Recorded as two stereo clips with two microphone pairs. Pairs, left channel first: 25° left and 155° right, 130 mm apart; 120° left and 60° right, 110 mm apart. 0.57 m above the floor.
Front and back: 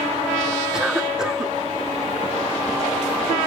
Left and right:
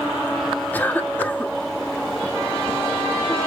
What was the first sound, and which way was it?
A cough, 130° left.